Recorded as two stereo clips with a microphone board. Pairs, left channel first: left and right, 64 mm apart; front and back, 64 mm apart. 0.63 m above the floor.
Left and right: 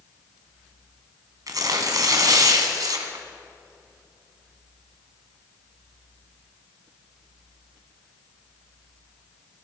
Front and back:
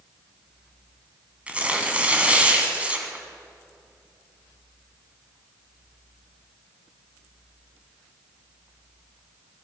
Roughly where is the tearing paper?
Right.